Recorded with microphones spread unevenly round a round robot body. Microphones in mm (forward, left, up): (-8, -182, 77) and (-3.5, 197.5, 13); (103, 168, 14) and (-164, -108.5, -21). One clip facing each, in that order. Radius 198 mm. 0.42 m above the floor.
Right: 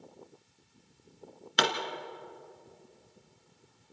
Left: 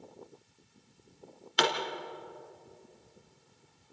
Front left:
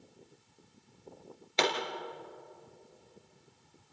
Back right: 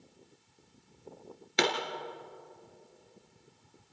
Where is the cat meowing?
I don't hear a cat meowing.